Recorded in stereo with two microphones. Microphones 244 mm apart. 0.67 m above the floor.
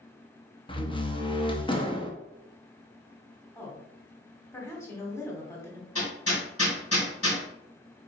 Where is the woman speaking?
10° left (ahead or behind), 1.5 m.